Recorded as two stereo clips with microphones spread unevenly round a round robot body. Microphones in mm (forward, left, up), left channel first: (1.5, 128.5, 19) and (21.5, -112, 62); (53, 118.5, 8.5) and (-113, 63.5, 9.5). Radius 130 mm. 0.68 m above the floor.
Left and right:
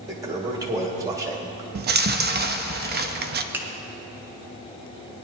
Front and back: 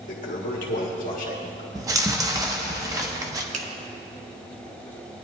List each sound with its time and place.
0.1 s a toilet flushing: 5° right, 1.4 m
1.8 s chewing: 110° right, 0.6 m
3.5 s a finger snap: 175° right, 1.2 m